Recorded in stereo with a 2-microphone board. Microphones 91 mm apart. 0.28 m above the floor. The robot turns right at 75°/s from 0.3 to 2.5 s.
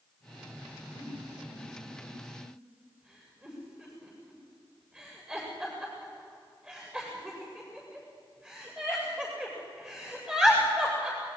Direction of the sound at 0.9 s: 75° left (ahead or behind).